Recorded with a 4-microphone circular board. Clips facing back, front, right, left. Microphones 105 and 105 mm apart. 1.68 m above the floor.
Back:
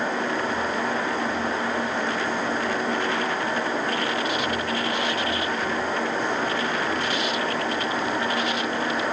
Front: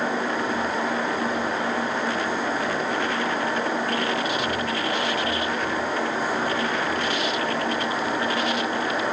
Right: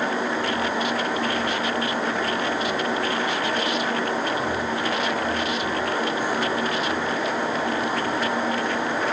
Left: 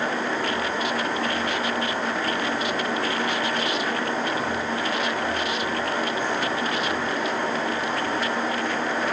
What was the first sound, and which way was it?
Only background noise.